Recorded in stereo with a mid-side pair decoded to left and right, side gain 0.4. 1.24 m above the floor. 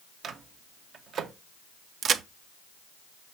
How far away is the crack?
About 0.6 m.